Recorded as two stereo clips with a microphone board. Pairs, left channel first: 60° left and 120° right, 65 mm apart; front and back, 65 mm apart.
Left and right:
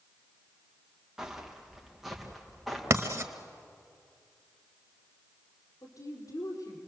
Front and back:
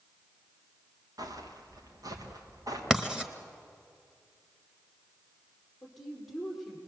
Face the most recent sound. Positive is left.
turn(degrees=90)